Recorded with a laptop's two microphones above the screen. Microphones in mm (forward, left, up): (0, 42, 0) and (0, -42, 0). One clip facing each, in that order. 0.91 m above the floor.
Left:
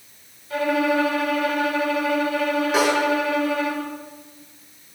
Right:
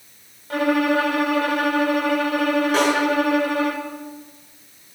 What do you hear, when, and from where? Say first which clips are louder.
0.5 s a violin: right 2 dB; 60° right (ahead or behind), 1.2 m
2.7 s a snare drum: left 1 dB; centre (ahead or behind), 6.5 m